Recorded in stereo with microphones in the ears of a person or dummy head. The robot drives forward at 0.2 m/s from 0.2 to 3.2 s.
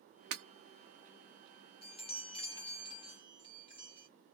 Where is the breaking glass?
60° right (ahead or behind), 0.8 m.